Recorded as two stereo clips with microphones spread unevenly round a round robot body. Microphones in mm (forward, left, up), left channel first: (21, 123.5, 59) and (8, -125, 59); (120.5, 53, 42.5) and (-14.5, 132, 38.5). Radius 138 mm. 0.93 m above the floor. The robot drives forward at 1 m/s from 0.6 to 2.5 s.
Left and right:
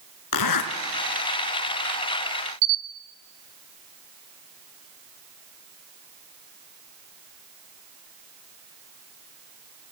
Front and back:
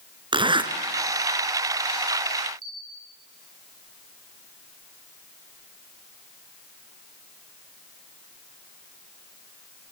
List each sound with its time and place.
0.3 s a zipper: 90° left, 2.5 m; by 0.7 s 95° left, 2.5 m
2.6 s a camera shutter: 130° right, 1.8 m